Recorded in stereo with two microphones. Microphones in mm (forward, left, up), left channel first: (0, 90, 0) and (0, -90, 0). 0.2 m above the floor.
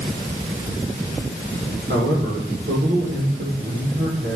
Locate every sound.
1.9 s a man speaking: 70° right (ahead or behind), 7.5 m